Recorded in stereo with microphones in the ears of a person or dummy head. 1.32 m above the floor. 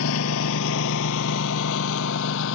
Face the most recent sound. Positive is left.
turn(degrees=65)  # may be behind; listen again after turning